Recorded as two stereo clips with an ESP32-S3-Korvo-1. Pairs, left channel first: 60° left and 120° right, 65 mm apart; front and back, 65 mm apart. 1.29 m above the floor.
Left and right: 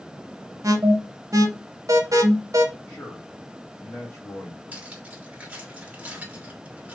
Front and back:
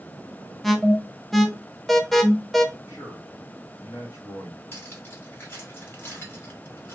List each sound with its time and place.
0.6 s an alarm: 90° right, 0.7 m
2.9 s a man speaking: 5° left, 1.4 m
4.7 s cutlery clinking: 50° right, 2 m